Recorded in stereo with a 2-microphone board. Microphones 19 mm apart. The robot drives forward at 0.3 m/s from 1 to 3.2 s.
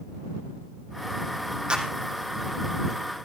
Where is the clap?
50° right (ahead or behind), 4.5 m.